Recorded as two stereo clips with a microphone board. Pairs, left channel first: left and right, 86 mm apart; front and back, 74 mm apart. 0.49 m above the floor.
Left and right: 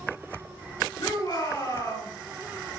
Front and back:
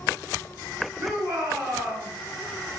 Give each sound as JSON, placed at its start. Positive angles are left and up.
{"t": 1.0, "sound": "a shout", "azimuth_deg": 135, "distance_m": 3.0}